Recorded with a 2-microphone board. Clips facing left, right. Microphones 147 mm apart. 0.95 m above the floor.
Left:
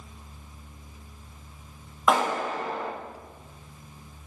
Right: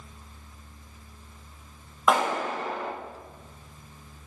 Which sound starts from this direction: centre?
A clap, at 2.1 s.